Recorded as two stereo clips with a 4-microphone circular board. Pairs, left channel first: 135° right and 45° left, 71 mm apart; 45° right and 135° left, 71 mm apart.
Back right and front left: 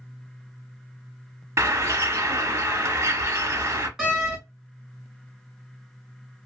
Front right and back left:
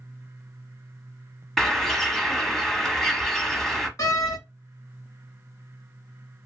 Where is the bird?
35° left, 0.8 m.